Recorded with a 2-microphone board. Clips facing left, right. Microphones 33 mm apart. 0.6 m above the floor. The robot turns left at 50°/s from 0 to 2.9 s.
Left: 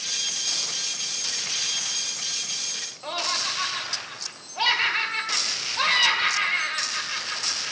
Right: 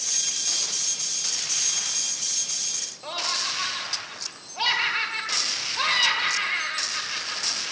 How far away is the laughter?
About 1.8 m.